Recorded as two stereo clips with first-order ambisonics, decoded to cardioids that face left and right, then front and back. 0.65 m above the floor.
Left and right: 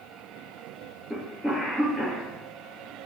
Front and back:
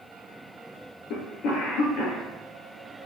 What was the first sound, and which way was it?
A cough, 5° left.